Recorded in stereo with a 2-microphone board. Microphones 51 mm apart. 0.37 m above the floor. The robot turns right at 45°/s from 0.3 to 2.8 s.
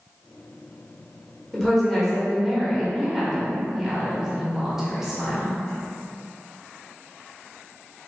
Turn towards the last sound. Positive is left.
turn(degrees=-10)  # may be behind; listen again after turning